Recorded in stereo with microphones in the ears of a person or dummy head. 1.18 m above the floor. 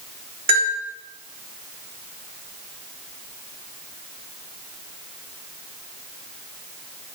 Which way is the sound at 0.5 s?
35° right (ahead or behind).